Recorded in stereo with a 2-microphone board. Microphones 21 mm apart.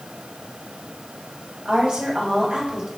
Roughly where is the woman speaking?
Right.